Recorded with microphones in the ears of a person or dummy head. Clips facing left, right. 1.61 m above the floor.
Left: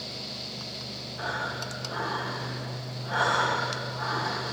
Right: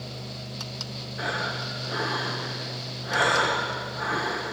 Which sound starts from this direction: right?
Breathing, at 1.2 s.